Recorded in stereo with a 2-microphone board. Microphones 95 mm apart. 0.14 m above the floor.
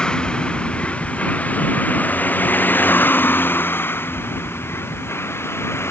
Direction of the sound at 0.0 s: 10° left (ahead or behind).